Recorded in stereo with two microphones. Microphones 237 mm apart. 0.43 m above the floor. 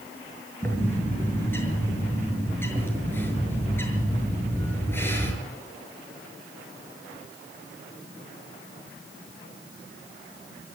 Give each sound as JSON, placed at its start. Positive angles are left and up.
{"t": 0.6, "sound": "a bird", "side_deg": 10, "distance_m": 6.5}